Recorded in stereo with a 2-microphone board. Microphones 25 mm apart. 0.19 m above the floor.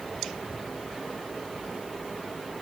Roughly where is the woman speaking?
I don't hear a woman speaking.